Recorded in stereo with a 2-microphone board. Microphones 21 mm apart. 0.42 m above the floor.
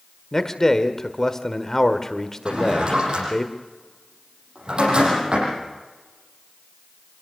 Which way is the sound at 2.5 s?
50° right (ahead or behind).